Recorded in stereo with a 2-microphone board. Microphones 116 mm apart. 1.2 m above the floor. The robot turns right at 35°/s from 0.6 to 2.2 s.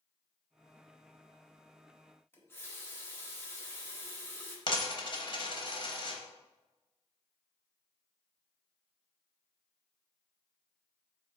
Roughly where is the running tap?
Centre.